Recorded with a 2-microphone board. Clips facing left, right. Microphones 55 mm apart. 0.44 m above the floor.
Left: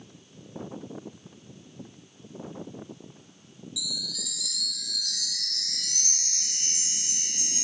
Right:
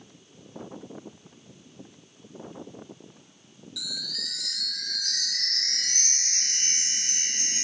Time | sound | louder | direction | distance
3.8 | a chime | even | 60° right (ahead or behind) | 0.6 m